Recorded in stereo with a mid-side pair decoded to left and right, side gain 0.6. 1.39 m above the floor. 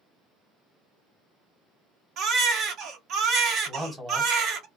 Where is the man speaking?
15° right, 1.2 m.